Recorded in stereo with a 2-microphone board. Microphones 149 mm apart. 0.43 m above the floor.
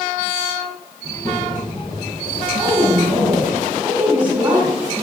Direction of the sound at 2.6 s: 15° right (ahead or behind).